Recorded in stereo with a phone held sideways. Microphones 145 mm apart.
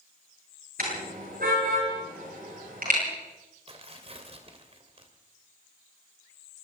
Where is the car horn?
85° right, 9.5 m.